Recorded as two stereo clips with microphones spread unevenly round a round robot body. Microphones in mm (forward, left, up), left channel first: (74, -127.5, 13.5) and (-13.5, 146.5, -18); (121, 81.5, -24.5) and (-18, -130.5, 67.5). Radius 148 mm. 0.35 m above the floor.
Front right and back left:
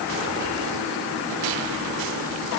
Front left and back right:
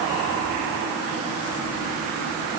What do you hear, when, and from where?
Only background noise.